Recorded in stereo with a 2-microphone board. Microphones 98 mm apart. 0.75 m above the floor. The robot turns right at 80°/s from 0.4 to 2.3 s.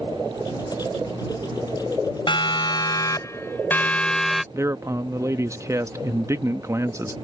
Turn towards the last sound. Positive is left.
turn(degrees=-30)  # may be behind; listen again after turning